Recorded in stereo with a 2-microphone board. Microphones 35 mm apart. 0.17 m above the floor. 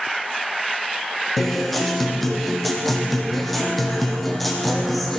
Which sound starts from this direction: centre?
A guitar, at 1.4 s.